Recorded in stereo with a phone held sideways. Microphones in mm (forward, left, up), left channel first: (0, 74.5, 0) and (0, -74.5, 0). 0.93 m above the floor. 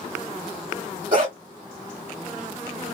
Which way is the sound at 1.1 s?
60° right (ahead or behind).